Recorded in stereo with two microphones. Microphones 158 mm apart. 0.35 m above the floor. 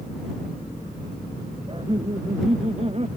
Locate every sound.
1.7 s laughter: 35° right (ahead or behind); by 3.1 s 40° right (ahead or behind)